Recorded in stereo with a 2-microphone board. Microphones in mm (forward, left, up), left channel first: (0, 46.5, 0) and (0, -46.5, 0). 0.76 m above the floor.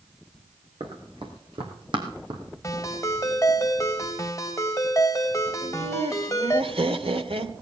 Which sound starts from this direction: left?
A ringtone, at 2.6 s.